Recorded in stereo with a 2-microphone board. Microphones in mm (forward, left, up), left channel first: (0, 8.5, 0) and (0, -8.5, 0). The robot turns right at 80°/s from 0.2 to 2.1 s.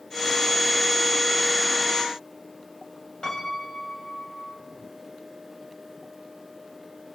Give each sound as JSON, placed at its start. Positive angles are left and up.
{"t": 3.2, "sound": "a piano", "side_deg": 45, "distance_m": 8.5}